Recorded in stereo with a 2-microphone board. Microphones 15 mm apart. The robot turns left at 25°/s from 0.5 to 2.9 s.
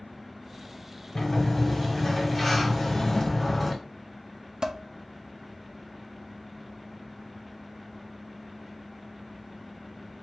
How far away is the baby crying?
I don't hear a baby crying.